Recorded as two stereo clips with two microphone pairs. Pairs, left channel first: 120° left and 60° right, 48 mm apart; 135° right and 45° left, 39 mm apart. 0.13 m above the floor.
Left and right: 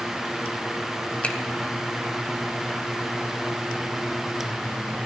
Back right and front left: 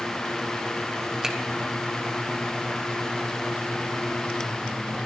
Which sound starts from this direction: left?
A finger snap, at 1.2 s.